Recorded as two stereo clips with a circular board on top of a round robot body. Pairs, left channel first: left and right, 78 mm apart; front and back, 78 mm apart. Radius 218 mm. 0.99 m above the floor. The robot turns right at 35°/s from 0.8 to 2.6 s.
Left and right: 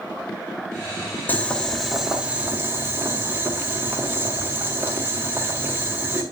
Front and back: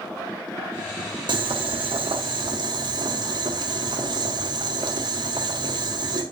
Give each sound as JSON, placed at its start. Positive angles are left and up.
{"t": 1.3, "sound": "boiling", "azimuth_deg": 160, "distance_m": 1.0}